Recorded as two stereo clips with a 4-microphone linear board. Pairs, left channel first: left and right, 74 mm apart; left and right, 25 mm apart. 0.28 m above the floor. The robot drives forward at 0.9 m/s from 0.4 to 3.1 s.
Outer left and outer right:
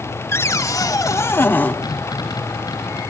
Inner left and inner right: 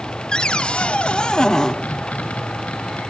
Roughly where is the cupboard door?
Left.